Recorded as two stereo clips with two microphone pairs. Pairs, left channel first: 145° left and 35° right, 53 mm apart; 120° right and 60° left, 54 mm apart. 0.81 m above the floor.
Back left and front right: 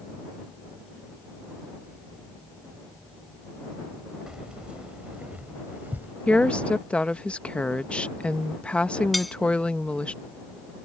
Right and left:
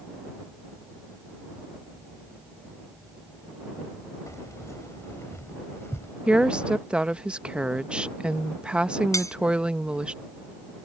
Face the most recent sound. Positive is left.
turn(degrees=-125)